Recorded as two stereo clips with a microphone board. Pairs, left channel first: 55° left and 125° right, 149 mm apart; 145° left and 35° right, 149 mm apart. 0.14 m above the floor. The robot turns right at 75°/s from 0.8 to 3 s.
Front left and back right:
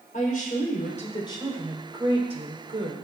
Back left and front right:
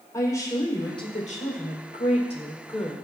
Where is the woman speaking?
75° left, 4.5 m; by 3.0 s 120° right, 4.5 m.